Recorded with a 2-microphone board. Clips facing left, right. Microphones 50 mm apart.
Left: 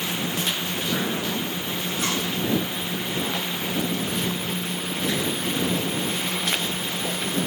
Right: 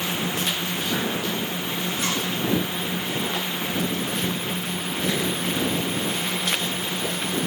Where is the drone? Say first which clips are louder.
Right 1 dB; 15° right (ahead or behind); by 7.5 s 10° right (ahead or behind).